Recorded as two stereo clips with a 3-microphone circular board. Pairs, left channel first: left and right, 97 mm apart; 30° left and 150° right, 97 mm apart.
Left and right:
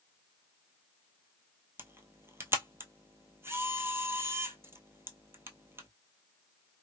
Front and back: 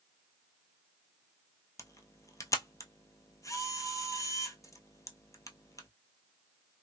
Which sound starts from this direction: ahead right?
A camera shutter, at 1.8 s.